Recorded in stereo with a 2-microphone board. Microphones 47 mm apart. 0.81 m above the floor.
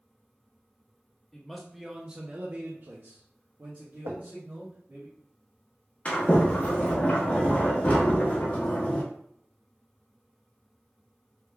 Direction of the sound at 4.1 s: 50° right (ahead or behind).